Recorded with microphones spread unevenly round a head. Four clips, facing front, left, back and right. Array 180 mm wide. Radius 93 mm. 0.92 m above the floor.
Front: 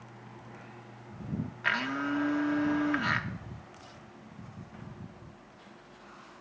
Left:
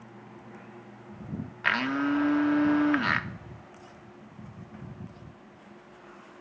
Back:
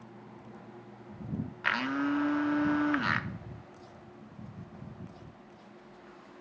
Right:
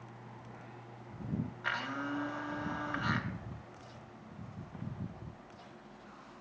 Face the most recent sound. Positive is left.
turn(degrees=85)